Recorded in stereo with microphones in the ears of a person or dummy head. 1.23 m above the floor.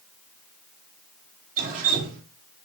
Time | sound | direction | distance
1.6 | dripping | 50° right (ahead or behind) | 1.7 m